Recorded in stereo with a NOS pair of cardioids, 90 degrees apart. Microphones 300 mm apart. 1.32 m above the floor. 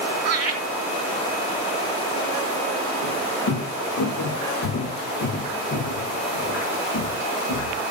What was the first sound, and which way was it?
Laughter, 35° right.